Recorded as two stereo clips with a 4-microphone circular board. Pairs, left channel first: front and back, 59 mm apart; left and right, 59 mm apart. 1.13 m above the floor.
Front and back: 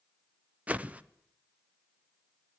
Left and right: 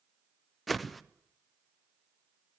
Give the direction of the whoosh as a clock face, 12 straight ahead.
6 o'clock.